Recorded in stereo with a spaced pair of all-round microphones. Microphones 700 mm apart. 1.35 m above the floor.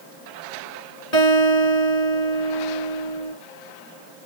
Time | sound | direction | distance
1.1 | a guitar | 80° left | 2.5 m